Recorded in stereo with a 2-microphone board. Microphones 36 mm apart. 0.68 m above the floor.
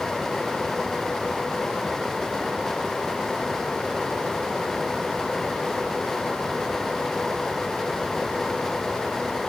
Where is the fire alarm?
I don't hear a fire alarm.